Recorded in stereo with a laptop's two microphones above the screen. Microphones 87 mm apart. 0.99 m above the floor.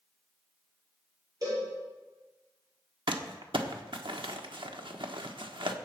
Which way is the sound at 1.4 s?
40° right (ahead or behind).